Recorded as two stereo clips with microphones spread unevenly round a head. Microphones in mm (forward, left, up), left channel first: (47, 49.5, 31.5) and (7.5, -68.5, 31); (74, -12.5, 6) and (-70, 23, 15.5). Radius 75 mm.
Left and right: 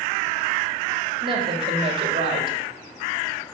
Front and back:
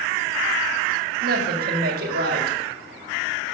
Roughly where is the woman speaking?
Behind.